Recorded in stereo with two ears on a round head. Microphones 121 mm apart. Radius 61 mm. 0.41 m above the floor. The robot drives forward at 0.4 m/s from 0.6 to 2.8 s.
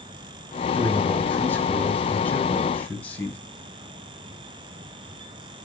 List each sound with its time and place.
0.8 s a man speaking: 15° left (ahead or behind), 3 m; by 3.4 s 10° left (ahead or behind), 4 m